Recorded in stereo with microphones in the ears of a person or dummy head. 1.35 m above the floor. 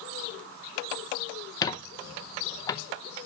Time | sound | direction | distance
1.6 | a squeak | 20° left (ahead or behind) | 0.5 m